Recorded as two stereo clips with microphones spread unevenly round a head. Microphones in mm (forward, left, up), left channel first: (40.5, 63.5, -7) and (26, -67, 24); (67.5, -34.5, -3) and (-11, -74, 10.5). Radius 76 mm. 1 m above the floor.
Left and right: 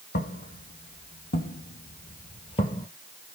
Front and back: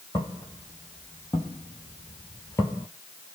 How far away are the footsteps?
About 2 m.